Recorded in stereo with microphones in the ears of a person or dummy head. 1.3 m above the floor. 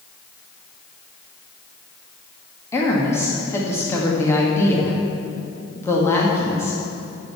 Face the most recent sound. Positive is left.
turn(degrees=15)  # may be behind; listen again after turning